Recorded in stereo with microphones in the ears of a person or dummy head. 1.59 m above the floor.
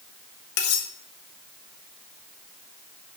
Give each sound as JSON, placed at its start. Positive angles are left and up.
{"t": 0.6, "sound": "cutlery clinking", "side_deg": 65, "distance_m": 1.6}